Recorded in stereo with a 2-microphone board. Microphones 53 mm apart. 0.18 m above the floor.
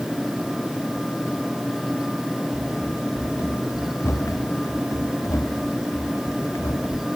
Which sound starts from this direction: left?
Running footsteps, at 2.5 s.